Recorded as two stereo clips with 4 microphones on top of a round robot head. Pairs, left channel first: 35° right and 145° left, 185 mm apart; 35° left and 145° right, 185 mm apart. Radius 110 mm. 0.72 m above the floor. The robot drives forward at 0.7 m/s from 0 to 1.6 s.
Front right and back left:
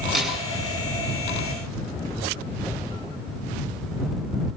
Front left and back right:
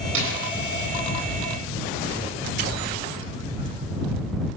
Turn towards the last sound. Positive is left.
turn(degrees=-135)